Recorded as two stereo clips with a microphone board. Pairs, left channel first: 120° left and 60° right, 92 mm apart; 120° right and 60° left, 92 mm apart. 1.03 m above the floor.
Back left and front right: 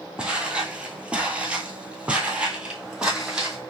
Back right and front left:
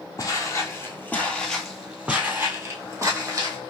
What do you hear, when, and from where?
0.2 s footsteps: 135° right, 1.3 m; by 3.6 s 20° left, 1.7 m